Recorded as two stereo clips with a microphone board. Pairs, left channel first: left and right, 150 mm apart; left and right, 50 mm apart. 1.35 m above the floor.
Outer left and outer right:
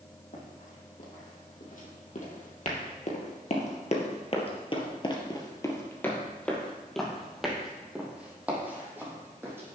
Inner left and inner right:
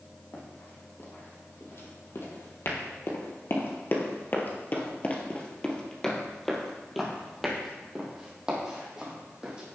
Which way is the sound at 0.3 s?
55° left (ahead or behind).